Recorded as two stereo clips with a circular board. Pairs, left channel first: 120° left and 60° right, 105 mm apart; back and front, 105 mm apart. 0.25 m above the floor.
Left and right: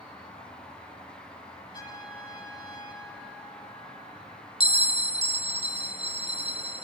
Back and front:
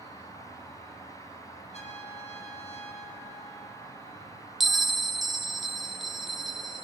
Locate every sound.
0.0 s an insect: 160° left, 8 m
1.7 s a trumpet: 170° left, 9 m
4.6 s a bell: 90° right, 0.6 m